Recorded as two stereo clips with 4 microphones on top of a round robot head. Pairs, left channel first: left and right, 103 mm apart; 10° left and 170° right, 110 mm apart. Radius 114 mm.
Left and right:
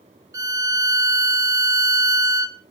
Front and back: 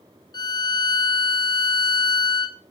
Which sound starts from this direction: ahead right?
A violin, at 0.3 s.